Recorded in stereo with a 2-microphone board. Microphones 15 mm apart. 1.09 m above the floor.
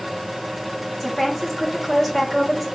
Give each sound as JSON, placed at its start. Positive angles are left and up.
{"t": 1.0, "sound": "a woman speaking", "side_deg": 10, "distance_m": 1.4}